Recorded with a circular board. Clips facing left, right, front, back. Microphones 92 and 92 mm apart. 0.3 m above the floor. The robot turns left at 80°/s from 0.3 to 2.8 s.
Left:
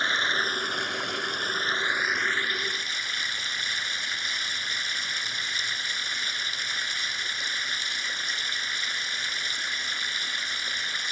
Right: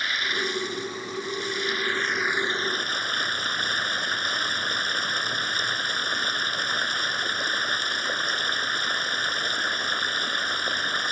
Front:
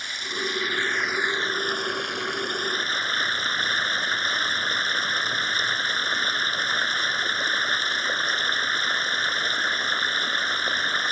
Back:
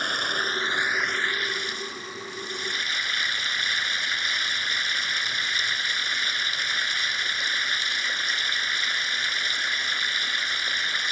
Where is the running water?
150° left; by 11.1 s 50° right.